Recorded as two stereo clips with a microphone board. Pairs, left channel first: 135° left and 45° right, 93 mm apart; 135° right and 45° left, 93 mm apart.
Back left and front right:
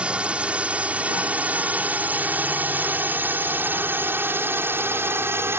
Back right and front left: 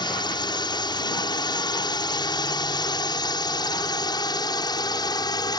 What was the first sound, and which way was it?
A drone, 120° right.